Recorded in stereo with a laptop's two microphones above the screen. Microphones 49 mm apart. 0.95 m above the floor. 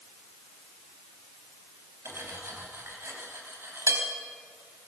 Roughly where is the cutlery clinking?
Right.